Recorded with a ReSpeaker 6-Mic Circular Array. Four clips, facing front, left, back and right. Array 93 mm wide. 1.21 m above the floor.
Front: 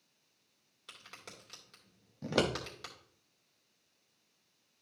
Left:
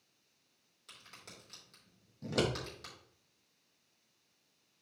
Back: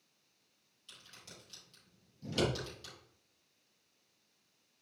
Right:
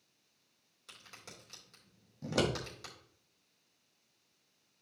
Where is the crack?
5° right, 3.5 m.